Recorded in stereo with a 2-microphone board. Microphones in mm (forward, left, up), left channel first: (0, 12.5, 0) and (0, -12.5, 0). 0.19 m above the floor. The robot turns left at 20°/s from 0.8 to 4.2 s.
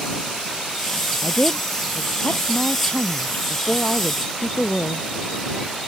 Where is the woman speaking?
95° left; by 5.1 s 35° left.